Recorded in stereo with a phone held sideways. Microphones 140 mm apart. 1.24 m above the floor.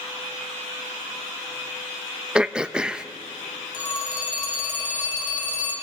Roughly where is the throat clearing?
Centre.